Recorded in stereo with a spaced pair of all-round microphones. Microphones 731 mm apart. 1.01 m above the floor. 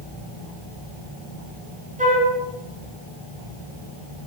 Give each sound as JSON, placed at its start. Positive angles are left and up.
{"t": 2.0, "sound": "a flute", "side_deg": -10, "distance_m": 6.0}